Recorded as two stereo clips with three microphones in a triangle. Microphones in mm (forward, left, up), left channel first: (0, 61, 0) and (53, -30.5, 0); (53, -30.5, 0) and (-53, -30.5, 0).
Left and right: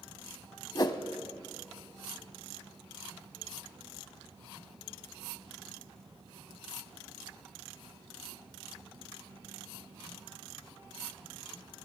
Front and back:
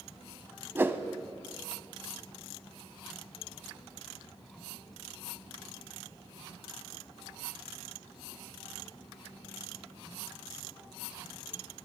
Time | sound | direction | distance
0.8 | a whoosh | 125° left | 0.5 m